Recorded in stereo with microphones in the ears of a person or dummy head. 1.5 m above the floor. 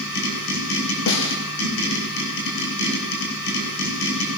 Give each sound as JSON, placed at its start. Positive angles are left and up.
{"t": 0.0, "sound": "a machine running", "side_deg": 80, "distance_m": 6.5}
{"t": 1.1, "sound": "a snare drum", "side_deg": 65, "distance_m": 1.4}